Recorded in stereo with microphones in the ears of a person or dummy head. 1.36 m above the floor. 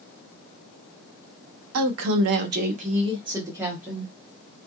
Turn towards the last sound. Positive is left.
turn(degrees=0)  # may be behind; listen again after turning